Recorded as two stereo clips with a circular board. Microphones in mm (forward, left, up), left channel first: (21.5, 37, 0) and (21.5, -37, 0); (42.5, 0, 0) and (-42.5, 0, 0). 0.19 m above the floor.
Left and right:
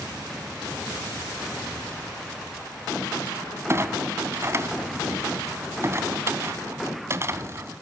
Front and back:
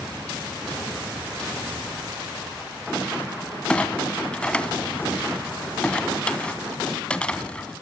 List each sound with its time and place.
3.7 s a clunk: 70° right, 1.5 m